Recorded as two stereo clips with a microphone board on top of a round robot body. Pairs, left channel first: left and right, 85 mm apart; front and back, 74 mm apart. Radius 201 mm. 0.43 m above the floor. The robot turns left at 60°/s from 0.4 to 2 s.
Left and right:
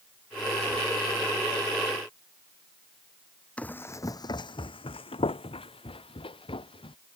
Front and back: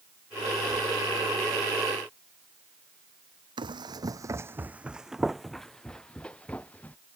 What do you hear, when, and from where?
3.6 s running footsteps: 165° left; by 7.0 s 70° left